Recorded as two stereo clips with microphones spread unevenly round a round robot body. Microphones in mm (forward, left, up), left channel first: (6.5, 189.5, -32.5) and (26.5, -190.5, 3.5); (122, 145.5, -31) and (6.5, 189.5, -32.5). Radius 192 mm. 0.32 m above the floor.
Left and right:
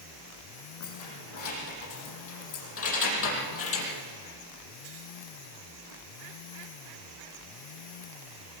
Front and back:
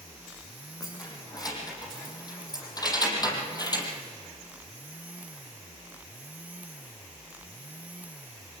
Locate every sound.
0.8 s keys jangling: 40° left, 9 m; by 3.9 s 35° left, 6 m